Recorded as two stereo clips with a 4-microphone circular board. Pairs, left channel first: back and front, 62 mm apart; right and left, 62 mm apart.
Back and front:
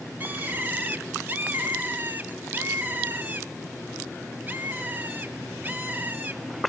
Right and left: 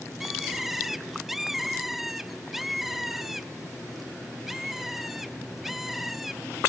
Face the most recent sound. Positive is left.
turn(degrees=5)